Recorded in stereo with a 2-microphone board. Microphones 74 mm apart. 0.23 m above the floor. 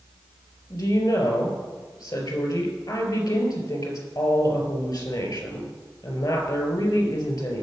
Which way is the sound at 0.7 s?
65° left (ahead or behind).